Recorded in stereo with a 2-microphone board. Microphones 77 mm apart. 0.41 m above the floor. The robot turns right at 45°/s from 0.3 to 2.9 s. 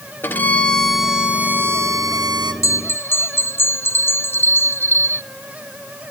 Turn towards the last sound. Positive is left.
turn(degrees=30)  # may be behind; listen again after turning